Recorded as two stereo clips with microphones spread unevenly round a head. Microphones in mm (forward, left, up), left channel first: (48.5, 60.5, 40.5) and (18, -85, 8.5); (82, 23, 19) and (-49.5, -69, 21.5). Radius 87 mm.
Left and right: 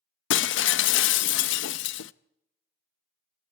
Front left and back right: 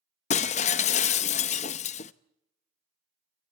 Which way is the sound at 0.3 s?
90° left.